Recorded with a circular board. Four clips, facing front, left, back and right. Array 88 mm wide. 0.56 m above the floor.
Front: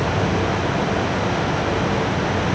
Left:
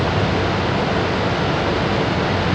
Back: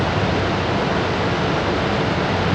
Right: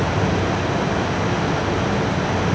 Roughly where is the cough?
I don't hear a cough.